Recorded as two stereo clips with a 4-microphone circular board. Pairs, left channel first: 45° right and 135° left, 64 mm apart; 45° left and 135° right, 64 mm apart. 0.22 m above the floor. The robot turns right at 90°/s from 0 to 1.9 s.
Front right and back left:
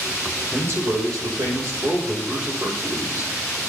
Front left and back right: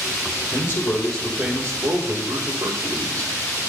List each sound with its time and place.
0.5 s a man speaking: 70° left, 6 m; by 3.3 s 165° right, 6 m